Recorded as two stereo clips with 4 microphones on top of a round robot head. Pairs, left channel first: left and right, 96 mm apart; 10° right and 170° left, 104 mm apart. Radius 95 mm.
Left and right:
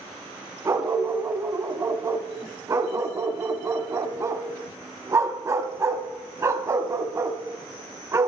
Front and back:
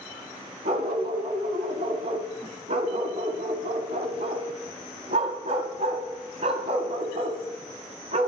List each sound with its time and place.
0.7 s a dog barking: 150° right, 1.5 m